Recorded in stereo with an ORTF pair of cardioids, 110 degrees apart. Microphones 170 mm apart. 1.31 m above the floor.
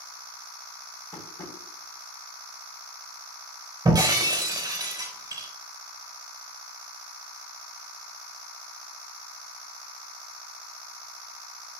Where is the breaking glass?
25° right, 4 m.